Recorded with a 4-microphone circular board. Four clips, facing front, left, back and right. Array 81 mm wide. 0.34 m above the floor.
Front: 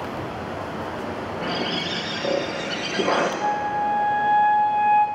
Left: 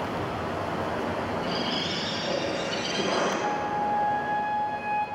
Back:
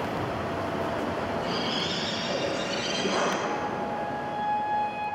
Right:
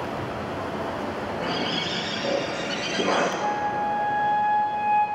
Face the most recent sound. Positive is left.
turn(degrees=-10)